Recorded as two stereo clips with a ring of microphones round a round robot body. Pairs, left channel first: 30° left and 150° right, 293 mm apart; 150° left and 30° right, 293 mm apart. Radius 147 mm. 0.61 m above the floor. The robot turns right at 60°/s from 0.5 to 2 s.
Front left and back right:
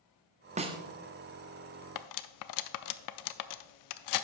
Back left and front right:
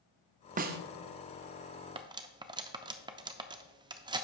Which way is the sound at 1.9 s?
40° left.